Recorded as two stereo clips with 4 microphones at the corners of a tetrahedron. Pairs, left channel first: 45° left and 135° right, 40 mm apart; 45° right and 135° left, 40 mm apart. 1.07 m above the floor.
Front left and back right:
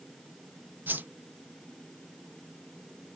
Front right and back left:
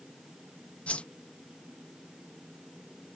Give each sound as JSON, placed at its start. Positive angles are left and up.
{"t": 0.9, "sound": "a whoosh", "azimuth_deg": -100}